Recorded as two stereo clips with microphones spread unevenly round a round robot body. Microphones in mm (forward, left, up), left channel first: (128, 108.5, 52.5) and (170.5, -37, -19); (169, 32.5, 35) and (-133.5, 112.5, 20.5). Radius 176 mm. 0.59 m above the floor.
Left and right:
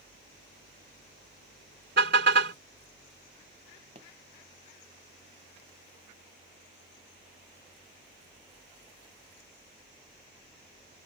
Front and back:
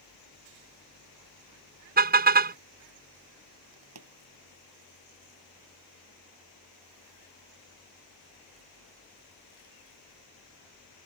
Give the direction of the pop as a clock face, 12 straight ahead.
5 o'clock.